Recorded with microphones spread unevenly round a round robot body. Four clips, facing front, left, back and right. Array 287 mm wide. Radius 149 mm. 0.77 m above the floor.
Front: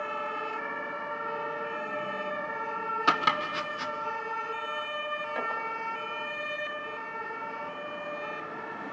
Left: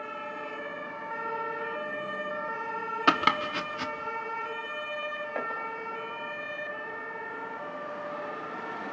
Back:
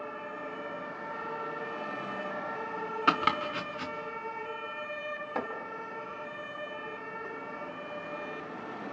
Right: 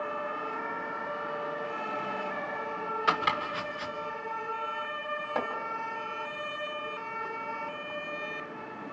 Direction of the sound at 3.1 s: 90° left.